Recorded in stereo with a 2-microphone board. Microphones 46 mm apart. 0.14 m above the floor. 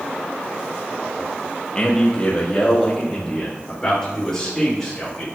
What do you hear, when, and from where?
1.8 s a man speaking: 25° left (ahead or behind), 3 m; by 5.2 s 10° left (ahead or behind), 8 m